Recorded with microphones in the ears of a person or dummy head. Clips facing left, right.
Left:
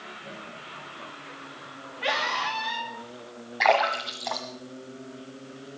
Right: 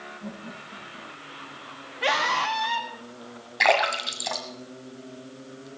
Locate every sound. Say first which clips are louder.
0.2 s laughter: right 6 dB; 70° right (ahead or behind), 9.5 m; by 1.7 s 65° right (ahead or behind), 10 m
2.0 s a scream: right 3 dB; 50° right (ahead or behind), 2.5 m
3.6 s a splash: even; 35° right (ahead or behind), 1.6 m